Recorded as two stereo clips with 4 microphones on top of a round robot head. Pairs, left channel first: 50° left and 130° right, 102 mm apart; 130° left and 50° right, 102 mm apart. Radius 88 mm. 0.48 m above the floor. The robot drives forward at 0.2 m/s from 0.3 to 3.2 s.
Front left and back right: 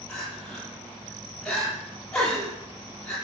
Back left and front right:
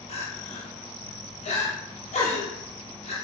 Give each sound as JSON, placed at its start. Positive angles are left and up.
{"t": 0.1, "sound": "crying", "azimuth_deg": 135, "distance_m": 9.5}